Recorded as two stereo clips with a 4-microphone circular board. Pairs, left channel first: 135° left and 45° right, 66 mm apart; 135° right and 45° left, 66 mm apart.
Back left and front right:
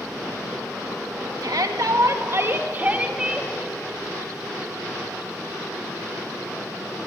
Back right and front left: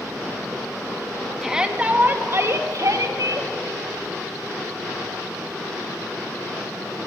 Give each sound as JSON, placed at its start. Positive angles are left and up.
{"t": 1.4, "sound": "a shout", "azimuth_deg": -35, "distance_m": 2.0}